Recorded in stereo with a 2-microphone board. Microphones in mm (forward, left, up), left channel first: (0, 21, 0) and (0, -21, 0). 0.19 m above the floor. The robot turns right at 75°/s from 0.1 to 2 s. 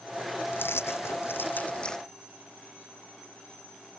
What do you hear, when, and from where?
0.5 s keys jangling: 60° left; by 2.0 s 170° left